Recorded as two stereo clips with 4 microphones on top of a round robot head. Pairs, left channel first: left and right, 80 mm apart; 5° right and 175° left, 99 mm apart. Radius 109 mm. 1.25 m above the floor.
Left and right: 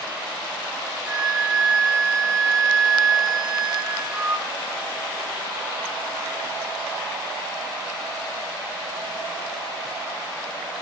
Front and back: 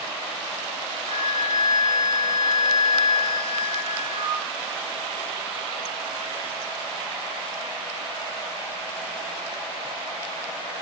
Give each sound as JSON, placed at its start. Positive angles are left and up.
{"t": 1.1, "sound": "a flute", "azimuth_deg": -170, "distance_m": 1.1}